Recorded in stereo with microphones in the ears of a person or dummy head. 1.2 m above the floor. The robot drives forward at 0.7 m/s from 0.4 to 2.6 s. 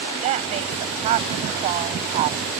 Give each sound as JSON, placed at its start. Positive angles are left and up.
{"t": 0.2, "sound": "a woman speaking", "side_deg": -40}